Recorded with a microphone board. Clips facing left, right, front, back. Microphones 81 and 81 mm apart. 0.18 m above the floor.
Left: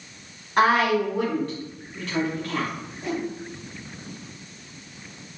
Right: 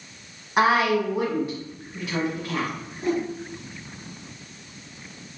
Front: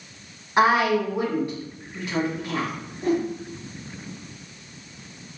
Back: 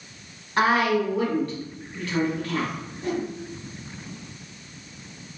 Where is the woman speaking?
35° right, 1.4 m.